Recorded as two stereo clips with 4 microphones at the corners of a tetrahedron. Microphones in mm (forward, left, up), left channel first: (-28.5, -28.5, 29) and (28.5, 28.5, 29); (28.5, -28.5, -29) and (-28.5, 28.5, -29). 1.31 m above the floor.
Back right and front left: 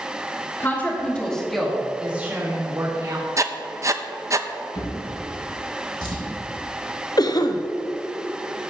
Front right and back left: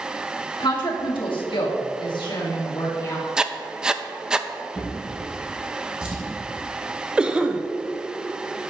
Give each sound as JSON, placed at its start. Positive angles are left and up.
{"t": 0.6, "sound": "a woman speaking", "azimuth_deg": -70, "distance_m": 2.5}
{"t": 3.4, "sound": "writing", "azimuth_deg": 55, "distance_m": 0.5}
{"t": 4.8, "sound": "a drawer", "azimuth_deg": -150, "distance_m": 3.5}
{"t": 7.2, "sound": "a cough", "azimuth_deg": -150, "distance_m": 0.8}